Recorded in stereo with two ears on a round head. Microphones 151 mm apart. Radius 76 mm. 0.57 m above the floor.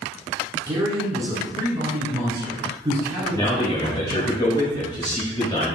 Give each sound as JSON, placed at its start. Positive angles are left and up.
{"t": 0.7, "sound": "a man speaking", "side_deg": -25, "distance_m": 1.8}
{"t": 3.3, "sound": "a man speaking", "side_deg": 25, "distance_m": 1.1}